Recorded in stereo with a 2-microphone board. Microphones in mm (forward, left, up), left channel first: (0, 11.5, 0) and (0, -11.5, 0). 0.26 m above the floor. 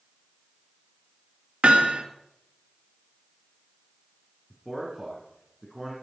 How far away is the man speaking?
About 2.5 m.